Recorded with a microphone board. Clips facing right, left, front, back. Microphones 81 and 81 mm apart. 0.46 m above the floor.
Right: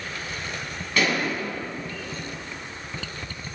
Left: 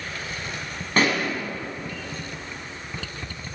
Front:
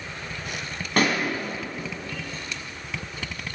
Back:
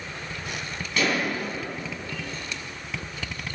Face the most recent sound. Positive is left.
turn(degrees=40)